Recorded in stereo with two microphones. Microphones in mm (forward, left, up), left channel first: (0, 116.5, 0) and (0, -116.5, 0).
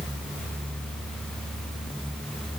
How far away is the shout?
No shout in this recording.